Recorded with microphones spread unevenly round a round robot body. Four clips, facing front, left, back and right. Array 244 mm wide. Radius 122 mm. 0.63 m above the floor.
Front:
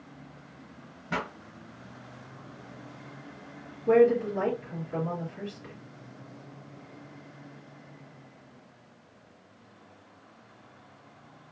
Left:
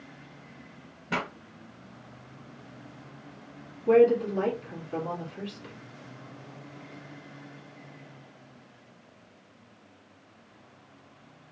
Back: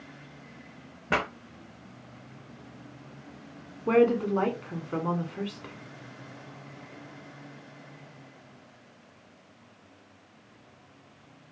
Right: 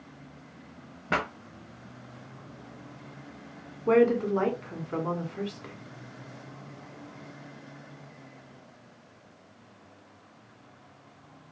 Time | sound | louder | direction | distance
1.1 | a pop | right 3 dB, back 4 dB | 150° right | 0.7 m
3.9 | a woman speaking | left 2 dB, front 1 dB | 150° right | 1.4 m